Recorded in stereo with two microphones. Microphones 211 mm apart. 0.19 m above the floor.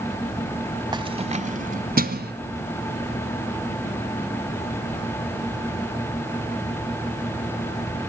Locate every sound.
0.9 s keys jangling: 20° right (ahead or behind), 1.0 m; by 2.3 s 50° right (ahead or behind), 1.6 m